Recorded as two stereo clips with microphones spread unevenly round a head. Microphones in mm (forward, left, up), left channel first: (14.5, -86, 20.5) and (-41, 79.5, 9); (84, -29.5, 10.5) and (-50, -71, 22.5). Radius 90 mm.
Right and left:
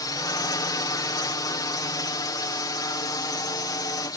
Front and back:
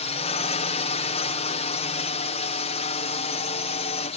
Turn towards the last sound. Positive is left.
turn(degrees=-5)